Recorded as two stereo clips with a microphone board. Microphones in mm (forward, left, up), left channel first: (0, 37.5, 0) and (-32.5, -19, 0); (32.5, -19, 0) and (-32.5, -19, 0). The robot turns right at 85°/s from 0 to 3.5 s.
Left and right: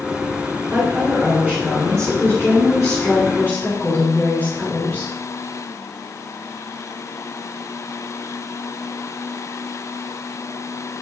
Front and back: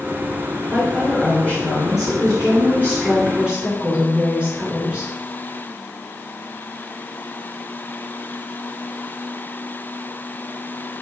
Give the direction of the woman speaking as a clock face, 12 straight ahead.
4 o'clock.